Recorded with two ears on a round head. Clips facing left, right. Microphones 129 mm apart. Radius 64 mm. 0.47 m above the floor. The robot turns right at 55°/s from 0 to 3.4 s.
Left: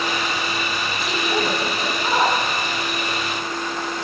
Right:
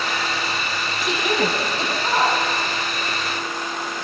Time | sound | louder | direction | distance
1.0 | a woman speaking | right 2 dB | 70° right (ahead or behind) | 7 m